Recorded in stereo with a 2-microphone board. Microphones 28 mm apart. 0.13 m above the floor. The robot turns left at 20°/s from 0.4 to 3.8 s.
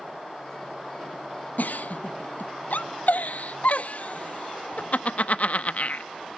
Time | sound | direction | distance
1.6 | a giggle | 75° left (ahead or behind) | 0.5 m